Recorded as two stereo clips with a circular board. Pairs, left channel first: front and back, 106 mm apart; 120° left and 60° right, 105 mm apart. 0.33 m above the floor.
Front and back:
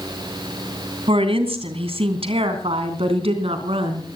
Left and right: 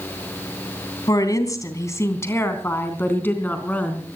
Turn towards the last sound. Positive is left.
turn(degrees=-165)